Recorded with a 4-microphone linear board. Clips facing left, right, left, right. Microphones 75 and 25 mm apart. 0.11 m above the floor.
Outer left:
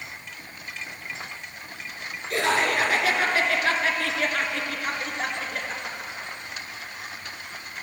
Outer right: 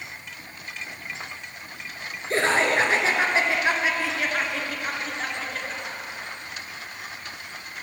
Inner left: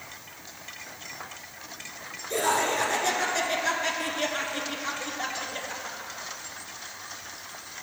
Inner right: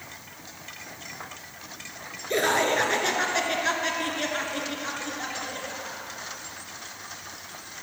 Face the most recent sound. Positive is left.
turn(degrees=20)  # may be behind; listen again after turning